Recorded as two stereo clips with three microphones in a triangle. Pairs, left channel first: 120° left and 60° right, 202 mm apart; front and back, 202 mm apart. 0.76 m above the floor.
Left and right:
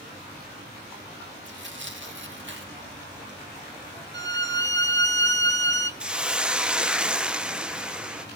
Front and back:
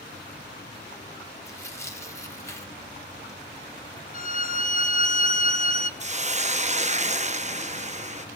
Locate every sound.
1.4 s tearing paper: 75° right, 1.5 m
4.1 s a violin: 45° right, 0.7 m
6.0 s a hiss: 145° right, 0.7 m